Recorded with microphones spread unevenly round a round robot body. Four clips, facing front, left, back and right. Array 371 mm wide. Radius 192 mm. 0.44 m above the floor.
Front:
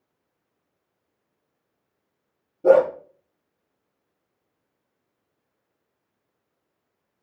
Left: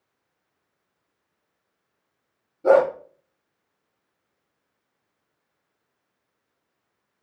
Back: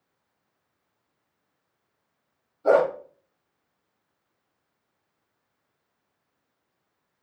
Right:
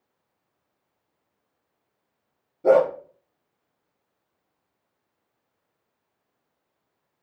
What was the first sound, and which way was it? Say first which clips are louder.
A dog barking: left 1 dB, front 4 dB; 10° right.